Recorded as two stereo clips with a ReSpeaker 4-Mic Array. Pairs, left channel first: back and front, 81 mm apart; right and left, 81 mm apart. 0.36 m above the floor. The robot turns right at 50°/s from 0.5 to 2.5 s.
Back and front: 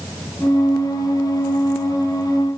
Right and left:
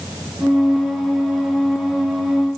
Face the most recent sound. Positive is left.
No sound to turn to.